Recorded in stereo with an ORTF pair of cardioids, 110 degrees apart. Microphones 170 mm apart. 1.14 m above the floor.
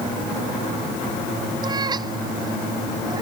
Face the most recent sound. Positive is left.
turn(degrees=-25)